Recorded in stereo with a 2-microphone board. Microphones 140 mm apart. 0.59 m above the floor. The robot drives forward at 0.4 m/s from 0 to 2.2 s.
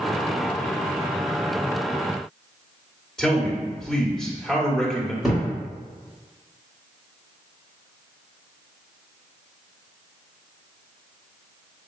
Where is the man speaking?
5° left (ahead or behind), 1.6 m.